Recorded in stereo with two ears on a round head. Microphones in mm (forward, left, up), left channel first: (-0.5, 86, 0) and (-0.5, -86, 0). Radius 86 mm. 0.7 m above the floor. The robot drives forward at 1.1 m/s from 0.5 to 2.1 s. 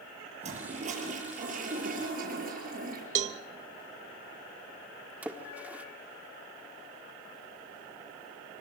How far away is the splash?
About 1.2 m.